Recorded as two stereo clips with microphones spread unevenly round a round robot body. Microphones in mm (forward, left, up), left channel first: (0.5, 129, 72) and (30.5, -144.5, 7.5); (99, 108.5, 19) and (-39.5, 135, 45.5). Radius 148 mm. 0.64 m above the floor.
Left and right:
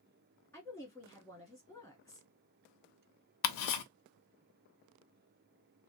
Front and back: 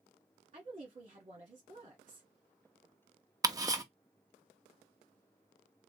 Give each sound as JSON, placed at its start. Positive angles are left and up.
{"t": 0.5, "sound": "a woman speaking", "azimuth_deg": -170, "distance_m": 1.0}
{"t": 3.4, "sound": "ticking", "azimuth_deg": 100, "distance_m": 0.8}